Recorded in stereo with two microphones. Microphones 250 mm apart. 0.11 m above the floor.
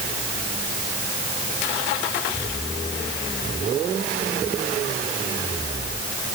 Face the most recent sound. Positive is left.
No sound to turn to.